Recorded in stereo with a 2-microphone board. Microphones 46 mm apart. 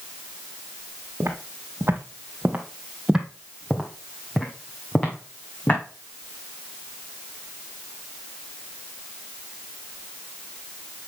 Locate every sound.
1.2 s footsteps: 65° right (ahead or behind), 2.0 m; by 5.8 s 35° left (ahead or behind), 3 m